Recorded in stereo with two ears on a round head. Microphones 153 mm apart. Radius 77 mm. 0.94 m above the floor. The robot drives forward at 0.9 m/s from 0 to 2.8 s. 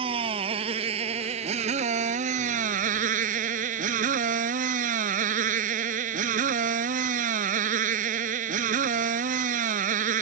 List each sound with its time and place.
0.0 s a motorcycle: 30° right (ahead or behind); by 10.2 s 50° right (ahead or behind)